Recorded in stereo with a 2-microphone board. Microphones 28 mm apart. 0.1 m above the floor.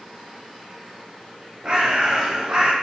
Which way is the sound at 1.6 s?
25° right (ahead or behind).